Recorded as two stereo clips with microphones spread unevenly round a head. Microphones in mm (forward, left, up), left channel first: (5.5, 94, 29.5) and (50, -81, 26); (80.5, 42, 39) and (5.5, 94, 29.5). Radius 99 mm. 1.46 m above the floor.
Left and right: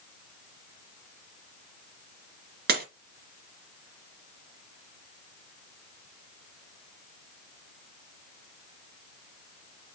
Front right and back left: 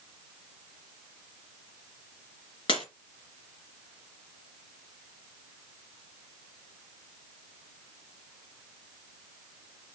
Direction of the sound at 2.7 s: 55° right.